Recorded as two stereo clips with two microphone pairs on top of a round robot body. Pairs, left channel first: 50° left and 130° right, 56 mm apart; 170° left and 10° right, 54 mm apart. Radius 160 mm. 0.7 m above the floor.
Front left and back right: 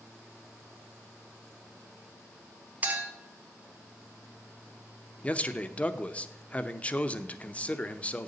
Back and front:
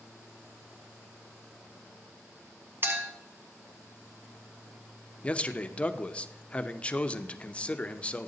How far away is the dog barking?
No dog barking in this recording.